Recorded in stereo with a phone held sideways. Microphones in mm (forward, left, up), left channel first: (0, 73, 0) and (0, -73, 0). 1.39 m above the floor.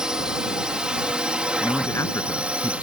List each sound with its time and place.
0.0 s a drone: 5° right (ahead or behind); by 2.8 s 10° right (ahead or behind)
1.6 s a man speaking: 20° left (ahead or behind)